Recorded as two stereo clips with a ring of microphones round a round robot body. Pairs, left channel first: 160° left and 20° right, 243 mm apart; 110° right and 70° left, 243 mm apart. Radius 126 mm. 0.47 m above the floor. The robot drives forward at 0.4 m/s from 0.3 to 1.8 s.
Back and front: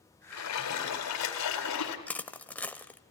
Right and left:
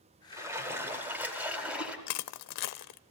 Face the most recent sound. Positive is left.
turn(degrees=-120)